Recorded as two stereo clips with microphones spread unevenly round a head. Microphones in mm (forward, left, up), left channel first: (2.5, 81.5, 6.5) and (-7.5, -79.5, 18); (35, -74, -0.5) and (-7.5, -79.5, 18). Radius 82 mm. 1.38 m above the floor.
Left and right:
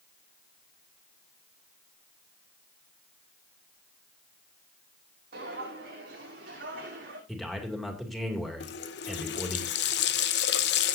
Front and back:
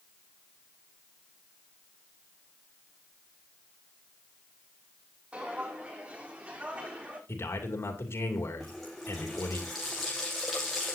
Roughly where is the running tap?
Left.